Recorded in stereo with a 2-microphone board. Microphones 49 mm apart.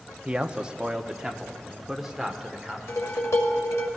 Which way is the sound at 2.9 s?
75° left (ahead or behind).